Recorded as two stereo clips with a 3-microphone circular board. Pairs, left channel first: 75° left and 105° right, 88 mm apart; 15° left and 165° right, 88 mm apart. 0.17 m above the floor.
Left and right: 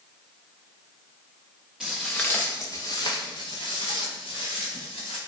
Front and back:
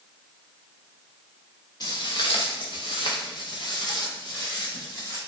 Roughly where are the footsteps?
Ahead.